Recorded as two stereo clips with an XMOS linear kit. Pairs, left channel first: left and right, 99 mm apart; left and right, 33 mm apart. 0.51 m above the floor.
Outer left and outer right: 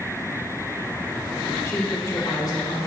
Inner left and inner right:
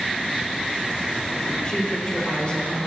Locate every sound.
1.6 s a woman speaking: 30° left (ahead or behind), 1.7 m; by 2.9 s 45° left (ahead or behind), 2.5 m